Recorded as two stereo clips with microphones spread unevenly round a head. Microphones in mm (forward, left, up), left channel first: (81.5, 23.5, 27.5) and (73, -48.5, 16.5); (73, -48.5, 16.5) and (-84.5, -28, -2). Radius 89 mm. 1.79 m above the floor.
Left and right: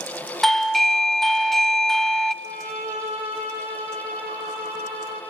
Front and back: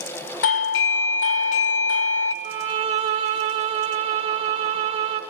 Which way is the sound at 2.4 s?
150° right.